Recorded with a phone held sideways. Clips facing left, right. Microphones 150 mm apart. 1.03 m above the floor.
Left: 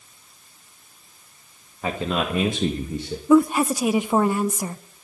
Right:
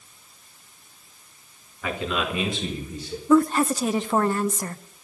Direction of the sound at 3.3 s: 10° left (ahead or behind).